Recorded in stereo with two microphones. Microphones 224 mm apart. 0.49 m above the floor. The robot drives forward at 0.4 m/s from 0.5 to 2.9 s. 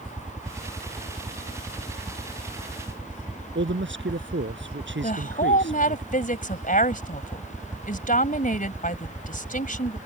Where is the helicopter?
5° right (ahead or behind).